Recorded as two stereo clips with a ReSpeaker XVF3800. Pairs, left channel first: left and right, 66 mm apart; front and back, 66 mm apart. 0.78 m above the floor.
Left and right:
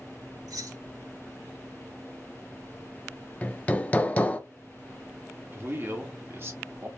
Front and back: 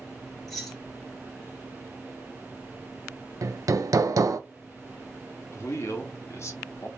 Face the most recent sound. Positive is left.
turn(degrees=-40)